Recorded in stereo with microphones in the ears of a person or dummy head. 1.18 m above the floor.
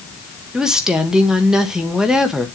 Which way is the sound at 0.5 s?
Centre (ahead or behind).